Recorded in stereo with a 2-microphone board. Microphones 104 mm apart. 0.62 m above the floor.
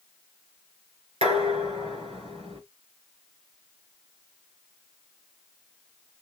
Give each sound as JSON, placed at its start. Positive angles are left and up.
{"t": 1.2, "sound": "dishes clattering", "side_deg": -80, "distance_m": 1.8}